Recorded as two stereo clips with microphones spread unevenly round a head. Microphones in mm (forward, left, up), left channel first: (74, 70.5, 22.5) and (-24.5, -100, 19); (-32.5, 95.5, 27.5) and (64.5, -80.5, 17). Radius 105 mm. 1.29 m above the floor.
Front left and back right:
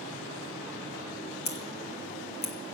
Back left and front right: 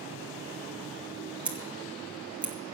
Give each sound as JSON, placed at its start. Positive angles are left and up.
{"t": 1.4, "sound": "scissors", "azimuth_deg": 25, "distance_m": 2.0}